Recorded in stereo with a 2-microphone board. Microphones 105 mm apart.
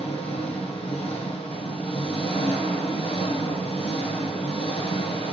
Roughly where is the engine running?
Left.